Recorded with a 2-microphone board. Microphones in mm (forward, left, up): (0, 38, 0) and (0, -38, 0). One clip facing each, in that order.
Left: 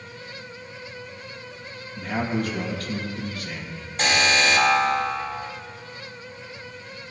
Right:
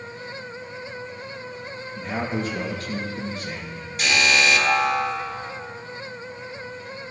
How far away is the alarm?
About 2.5 m.